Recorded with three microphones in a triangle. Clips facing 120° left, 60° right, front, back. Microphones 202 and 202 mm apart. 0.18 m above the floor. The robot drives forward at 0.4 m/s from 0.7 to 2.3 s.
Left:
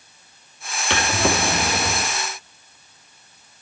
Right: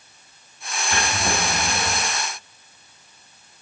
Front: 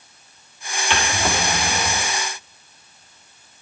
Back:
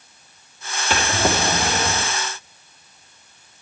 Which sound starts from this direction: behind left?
A drawer, at 0.9 s.